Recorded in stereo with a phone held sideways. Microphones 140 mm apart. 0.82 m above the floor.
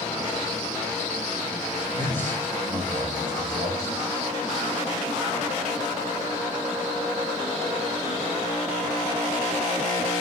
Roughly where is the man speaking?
Right.